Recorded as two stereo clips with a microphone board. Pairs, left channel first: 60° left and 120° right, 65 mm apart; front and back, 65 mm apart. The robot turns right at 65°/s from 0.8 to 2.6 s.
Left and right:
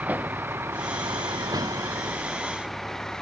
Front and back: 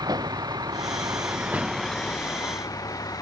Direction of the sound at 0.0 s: 175° left.